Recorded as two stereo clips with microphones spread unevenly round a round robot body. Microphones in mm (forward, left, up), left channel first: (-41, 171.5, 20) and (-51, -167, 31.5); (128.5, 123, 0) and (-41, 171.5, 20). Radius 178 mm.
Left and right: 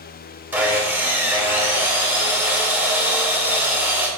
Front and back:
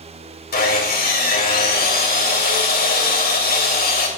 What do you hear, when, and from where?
0.5 s sawing: 5° right, 2 m